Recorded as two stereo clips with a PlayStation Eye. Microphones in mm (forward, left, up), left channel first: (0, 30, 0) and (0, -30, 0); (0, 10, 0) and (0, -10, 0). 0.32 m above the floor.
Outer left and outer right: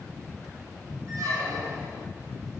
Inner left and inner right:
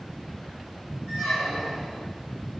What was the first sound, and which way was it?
A squeak, 80° right.